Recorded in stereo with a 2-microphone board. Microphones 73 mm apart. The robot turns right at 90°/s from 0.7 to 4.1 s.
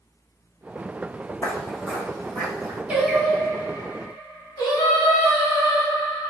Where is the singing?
20° right, 1.2 m; by 6.3 s 85° left, 1.2 m.